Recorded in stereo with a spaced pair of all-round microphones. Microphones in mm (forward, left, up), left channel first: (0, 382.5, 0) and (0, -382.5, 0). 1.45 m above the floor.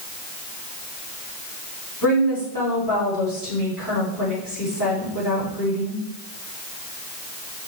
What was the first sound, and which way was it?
A woman speaking, 25° left (ahead or behind).